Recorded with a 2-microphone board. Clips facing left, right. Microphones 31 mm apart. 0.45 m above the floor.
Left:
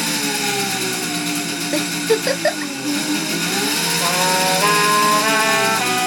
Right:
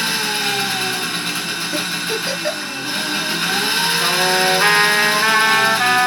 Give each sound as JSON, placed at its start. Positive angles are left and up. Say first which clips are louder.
{"t": 0.0, "sound": "an engine running", "louder": "right 1 dB", "side_deg": -30, "distance_m": 2.5}
{"t": 1.7, "sound": "a giggle", "louder": "left 6 dB", "side_deg": 25, "distance_m": 1.4}
{"t": 4.0, "sound": "a trumpet", "louder": "even", "side_deg": -60, "distance_m": 3.5}